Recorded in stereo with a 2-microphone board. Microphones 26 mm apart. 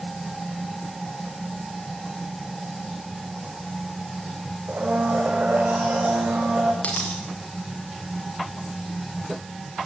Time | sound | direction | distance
4.7 | a blender | 85° right | 7 m
6.8 | a dropped coin | 65° left (ahead or behind) | 7.5 m